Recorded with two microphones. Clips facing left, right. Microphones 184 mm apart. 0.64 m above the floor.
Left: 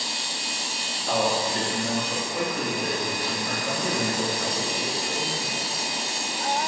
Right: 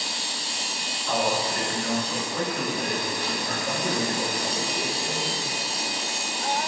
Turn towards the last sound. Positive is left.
turn(degrees=-40)  # may be behind; listen again after turning